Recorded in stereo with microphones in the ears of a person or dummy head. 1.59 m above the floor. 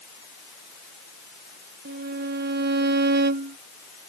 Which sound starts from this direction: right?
A violin, at 1.9 s.